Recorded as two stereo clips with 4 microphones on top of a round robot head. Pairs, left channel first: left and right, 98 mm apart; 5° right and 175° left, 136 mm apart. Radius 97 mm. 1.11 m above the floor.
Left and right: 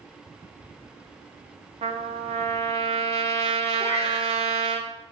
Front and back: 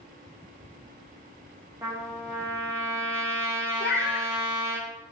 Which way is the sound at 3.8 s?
20° right.